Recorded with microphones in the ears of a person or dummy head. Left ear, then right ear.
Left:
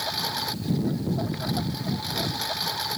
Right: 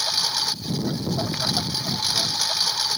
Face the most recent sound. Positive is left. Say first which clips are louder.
# right 5 dB
turn(degrees=-45)  # may be behind; listen again after turning